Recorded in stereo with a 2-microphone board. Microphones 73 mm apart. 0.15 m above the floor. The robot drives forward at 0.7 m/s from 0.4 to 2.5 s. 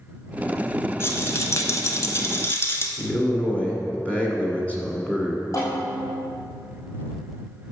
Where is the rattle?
35° left (ahead or behind), 0.9 m.